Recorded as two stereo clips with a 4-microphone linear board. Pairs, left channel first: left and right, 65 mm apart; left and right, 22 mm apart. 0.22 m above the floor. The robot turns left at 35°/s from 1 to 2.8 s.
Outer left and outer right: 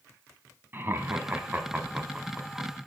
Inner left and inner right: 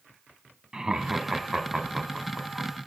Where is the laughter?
35° right (ahead or behind), 1.6 m; by 2.7 s centre (ahead or behind), 1.6 m.